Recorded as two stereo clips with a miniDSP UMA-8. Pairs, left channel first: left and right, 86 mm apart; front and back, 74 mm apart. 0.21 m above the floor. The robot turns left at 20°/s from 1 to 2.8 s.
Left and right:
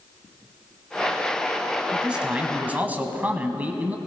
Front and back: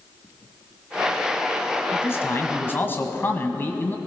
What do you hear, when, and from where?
1.9 s a man speaking: 15° right, 1.3 m; by 4.0 s 35° right, 1.3 m